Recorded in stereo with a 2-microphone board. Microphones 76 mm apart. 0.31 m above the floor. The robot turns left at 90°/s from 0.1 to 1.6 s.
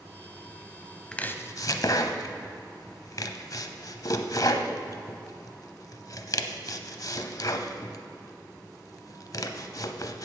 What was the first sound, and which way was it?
Chopping, 10° left (ahead or behind).